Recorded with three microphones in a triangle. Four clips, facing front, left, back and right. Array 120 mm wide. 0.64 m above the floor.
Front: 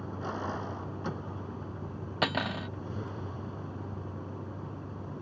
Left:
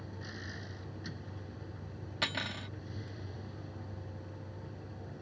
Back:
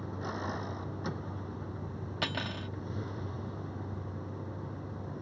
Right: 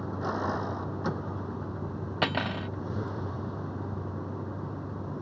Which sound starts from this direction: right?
A vehicle, at 0.0 s.